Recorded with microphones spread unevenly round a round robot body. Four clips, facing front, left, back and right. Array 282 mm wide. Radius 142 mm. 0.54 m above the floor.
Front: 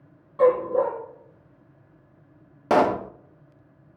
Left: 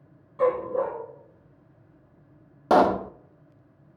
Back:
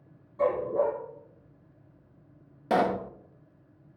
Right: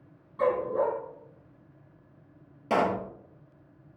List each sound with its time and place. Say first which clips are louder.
0.4 s a dog barking: left 2 dB, front 6 dB; 15° left, 7.5 m
2.7 s a pop: left 7 dB, front 6 dB; 60° left, 0.7 m